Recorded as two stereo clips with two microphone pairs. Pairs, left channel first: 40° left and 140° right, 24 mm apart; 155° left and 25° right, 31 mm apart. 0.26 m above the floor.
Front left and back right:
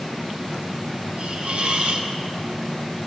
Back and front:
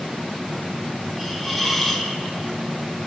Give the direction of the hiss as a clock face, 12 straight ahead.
4 o'clock.